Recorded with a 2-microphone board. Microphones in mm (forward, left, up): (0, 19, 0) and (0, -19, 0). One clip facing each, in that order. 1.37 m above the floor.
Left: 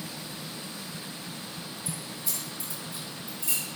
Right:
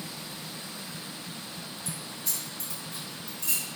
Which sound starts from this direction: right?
Keys jangling, at 1.9 s.